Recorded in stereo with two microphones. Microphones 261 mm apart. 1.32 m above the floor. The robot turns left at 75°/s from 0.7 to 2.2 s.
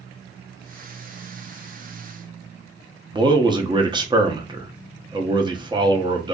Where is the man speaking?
15° right (ahead or behind), 0.8 m.